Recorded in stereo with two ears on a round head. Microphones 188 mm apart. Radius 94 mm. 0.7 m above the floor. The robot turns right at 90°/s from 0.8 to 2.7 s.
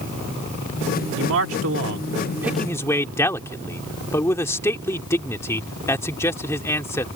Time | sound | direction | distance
1.2 | a man speaking | 125° right | ?